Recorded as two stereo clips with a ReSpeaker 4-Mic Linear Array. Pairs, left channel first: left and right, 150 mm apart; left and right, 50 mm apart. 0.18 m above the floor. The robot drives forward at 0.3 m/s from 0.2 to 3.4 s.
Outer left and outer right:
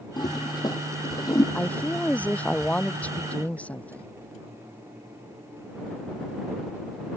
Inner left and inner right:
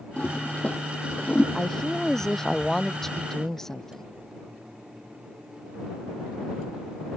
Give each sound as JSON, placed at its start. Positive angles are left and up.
{"t": 0.2, "sound": "a toilet flushing", "side_deg": 30}
{"t": 1.6, "sound": "a woman speaking", "side_deg": 10}